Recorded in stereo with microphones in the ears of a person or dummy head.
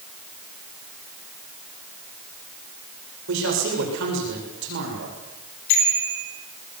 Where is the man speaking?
70° right (ahead or behind), 8 m; by 5.2 s 60° right (ahead or behind), 7.5 m.